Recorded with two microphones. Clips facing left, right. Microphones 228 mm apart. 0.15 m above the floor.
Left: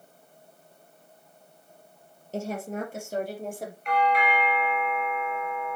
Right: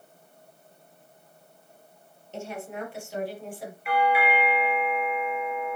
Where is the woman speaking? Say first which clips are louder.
Left 4 dB; 40° left (ahead or behind), 3 m; by 3.7 s 45° left (ahead or behind), 4 m.